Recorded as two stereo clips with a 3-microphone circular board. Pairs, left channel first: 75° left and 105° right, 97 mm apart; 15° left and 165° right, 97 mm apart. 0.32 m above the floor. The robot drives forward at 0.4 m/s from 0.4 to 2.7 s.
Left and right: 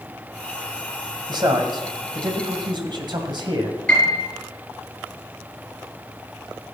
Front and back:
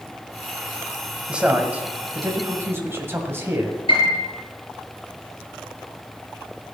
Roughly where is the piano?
Ahead.